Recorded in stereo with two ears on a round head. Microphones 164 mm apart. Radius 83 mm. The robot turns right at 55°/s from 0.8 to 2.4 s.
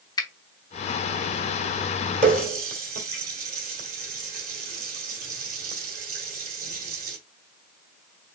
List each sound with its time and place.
0.2 s a finger snap: 20° left (ahead or behind), 0.8 m
2.2 s a running tap: 40° right (ahead or behind), 1.5 m; by 7.2 s 50° right (ahead or behind), 1.5 m